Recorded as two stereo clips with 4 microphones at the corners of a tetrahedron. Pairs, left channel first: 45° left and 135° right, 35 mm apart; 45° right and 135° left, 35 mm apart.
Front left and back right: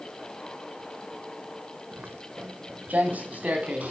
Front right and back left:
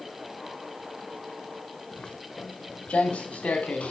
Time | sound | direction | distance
1.9 | footsteps | 100° right | 1.2 m